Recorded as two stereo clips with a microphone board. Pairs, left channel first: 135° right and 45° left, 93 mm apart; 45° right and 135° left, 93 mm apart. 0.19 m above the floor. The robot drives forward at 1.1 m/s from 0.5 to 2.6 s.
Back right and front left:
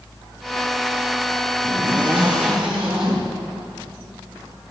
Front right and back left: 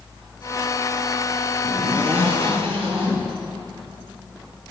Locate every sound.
1.6 s a zipper: 120° left, 8 m; by 4.7 s 130° left, 8.5 m